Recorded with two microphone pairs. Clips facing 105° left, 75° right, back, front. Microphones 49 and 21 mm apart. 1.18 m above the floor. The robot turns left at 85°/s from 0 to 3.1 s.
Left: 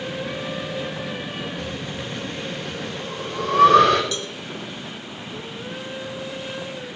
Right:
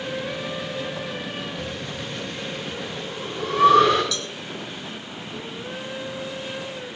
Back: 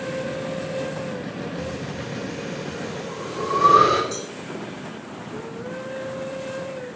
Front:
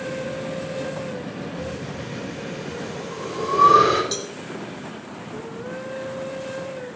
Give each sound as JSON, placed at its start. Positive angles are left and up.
{"t": 1.6, "sound": "breathing", "azimuth_deg": -155, "distance_m": 7.0}
{"t": 4.1, "sound": "a cowbell", "azimuth_deg": 40, "distance_m": 2.5}